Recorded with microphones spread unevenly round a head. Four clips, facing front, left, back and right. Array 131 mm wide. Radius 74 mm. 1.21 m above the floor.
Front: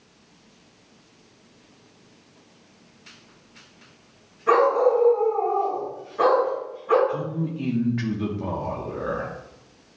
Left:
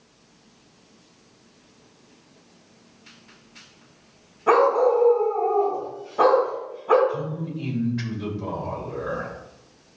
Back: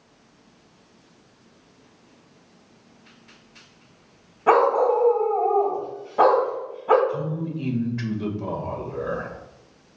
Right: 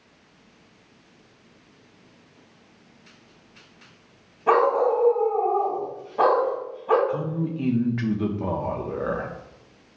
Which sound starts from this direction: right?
A man speaking, at 7.1 s.